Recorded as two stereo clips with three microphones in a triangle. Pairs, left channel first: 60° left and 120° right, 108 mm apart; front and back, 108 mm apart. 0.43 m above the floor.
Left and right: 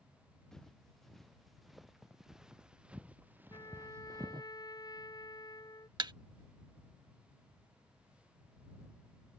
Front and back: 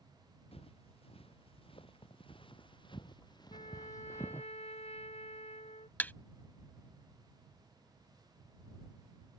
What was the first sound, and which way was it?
Footsteps, 25° right.